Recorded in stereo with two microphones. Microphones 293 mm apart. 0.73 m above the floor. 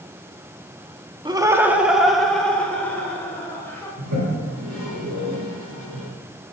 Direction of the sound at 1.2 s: 15° right (ahead or behind).